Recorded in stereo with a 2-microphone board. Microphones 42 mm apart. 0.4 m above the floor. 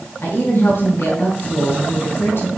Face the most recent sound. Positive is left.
turn(degrees=65)  # may be behind; listen again after turning